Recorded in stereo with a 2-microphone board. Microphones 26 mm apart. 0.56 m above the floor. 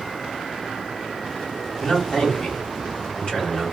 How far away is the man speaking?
About 1.7 m.